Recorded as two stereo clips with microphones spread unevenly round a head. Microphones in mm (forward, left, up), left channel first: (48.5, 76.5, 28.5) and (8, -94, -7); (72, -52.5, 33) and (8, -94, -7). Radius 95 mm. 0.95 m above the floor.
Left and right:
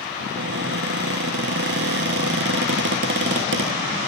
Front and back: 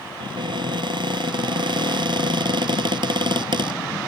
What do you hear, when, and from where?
0.2 s a cupboard door: 135° right